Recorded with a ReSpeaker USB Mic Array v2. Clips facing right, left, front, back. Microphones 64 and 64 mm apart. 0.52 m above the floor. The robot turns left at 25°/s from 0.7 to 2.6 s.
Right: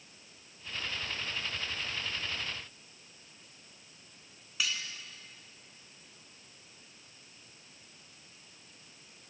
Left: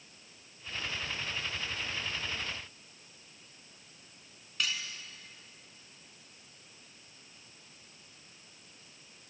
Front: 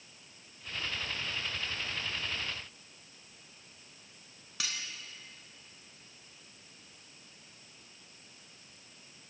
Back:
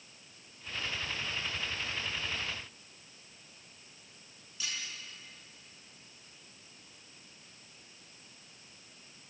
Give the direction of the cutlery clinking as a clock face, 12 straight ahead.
12 o'clock.